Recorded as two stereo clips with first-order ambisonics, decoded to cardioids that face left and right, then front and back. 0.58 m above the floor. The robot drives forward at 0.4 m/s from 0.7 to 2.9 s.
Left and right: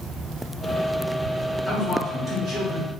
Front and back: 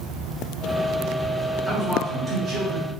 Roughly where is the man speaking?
Behind right.